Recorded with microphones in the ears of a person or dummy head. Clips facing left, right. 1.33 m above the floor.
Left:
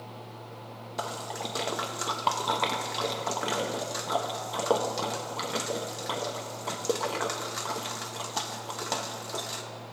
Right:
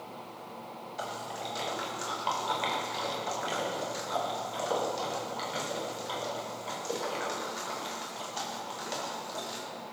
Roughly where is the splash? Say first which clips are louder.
Left 3 dB; left.